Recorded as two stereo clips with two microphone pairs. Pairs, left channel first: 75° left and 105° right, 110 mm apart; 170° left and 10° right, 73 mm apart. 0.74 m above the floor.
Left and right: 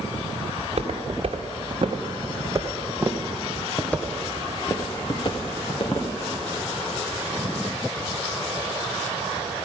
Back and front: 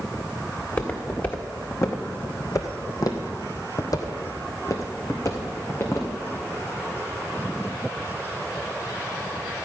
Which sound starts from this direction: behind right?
Footsteps, at 0.6 s.